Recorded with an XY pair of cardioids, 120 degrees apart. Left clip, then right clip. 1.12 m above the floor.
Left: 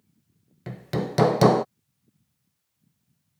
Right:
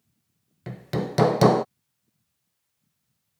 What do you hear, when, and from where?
0.7 s hammering: 5° left